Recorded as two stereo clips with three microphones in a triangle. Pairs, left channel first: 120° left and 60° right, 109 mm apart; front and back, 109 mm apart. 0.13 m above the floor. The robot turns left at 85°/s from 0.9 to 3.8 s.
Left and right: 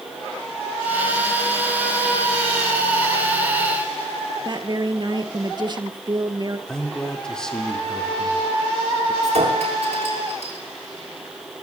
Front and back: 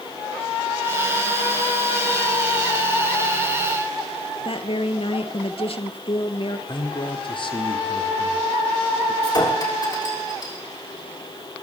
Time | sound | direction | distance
4.5 | a woman speaking | 20° right | 2 m
6.7 | a man speaking | 35° left | 5 m
9.2 | a clink | 50° right | 6.5 m